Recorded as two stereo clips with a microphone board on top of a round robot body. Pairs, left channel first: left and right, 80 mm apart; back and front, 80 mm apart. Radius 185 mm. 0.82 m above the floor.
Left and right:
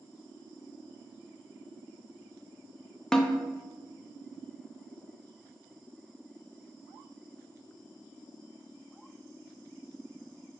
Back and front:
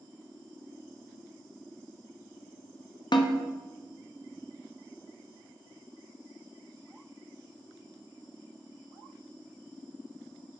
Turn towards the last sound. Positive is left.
turn(degrees=170)